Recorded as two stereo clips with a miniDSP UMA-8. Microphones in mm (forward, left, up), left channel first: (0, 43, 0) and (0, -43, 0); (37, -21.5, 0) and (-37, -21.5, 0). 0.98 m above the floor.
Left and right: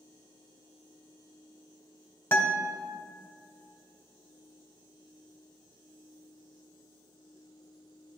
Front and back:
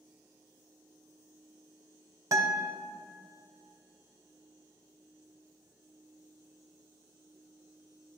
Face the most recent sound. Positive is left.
turn(degrees=150)